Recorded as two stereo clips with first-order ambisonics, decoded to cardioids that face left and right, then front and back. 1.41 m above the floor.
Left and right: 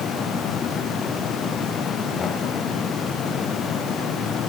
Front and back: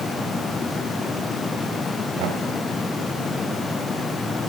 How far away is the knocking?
About 4.5 m.